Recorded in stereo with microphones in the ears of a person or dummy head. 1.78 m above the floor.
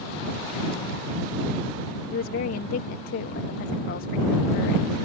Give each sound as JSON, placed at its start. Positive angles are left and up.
{"t": 2.1, "sound": "a woman speaking", "side_deg": 60}